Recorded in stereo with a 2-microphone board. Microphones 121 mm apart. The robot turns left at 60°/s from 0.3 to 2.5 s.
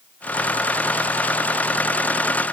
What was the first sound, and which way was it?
Only background noise.